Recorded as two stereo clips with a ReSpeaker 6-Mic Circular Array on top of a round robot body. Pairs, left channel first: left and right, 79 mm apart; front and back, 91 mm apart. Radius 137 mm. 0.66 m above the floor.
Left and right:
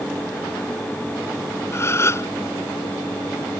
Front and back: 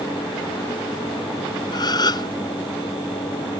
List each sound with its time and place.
1.7 s a gasp: 35° left